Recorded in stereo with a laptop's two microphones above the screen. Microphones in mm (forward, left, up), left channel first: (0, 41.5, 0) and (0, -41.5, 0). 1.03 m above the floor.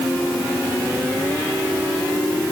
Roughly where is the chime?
No chime in this recording.